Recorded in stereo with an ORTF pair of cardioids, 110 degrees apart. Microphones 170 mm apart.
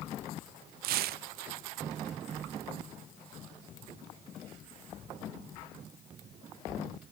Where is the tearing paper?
65° right, 0.5 m.